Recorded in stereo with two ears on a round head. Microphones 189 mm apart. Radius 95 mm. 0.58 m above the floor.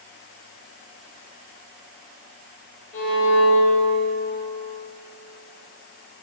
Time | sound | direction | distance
2.9 | a violin | 60° left (ahead or behind) | 1.5 m